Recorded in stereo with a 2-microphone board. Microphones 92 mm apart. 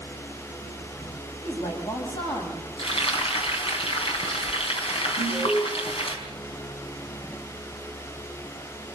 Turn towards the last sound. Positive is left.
turn(degrees=65)  # may be behind; listen again after turning